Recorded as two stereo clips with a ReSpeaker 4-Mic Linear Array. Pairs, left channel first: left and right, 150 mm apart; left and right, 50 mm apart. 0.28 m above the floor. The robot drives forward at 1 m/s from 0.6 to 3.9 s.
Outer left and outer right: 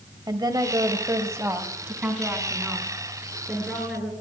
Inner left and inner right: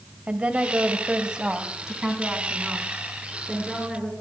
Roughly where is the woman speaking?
Right.